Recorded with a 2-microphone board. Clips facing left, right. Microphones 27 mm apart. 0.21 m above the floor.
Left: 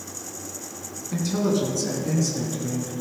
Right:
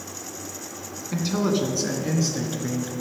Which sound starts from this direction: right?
A man speaking, at 1.1 s.